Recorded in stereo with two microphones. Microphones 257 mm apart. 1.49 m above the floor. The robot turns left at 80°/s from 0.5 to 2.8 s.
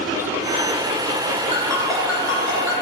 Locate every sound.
1.5 s a ringtone: 25° right (ahead or behind), 0.6 m; by 2.8 s 55° left (ahead or behind), 0.6 m